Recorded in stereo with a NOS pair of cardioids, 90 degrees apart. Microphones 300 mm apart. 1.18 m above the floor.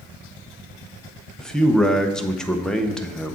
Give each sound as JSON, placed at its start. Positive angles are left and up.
{"t": 1.4, "sound": "a man speaking", "azimuth_deg": 0, "distance_m": 0.7}